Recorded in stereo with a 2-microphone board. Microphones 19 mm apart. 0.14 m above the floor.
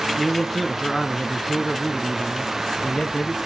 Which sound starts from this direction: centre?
A man speaking, at 0.2 s.